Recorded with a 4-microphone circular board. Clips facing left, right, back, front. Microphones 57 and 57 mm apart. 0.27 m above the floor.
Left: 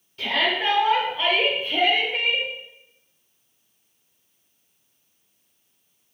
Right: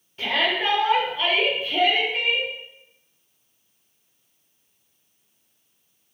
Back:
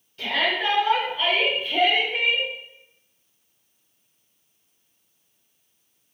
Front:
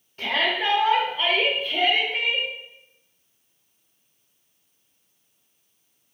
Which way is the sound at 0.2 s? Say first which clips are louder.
Even, even; 35° right.